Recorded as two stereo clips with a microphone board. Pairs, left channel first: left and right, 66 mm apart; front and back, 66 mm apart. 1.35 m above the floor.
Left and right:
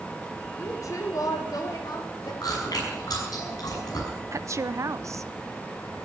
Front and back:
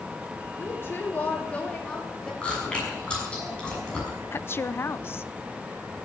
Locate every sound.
0.6 s a woman speaking: 45° left, 2.5 m; by 2.3 s 80° left, 4.5 m
2.4 s chewing: 75° left, 6.5 m
4.3 s a woman speaking: 50° right, 0.6 m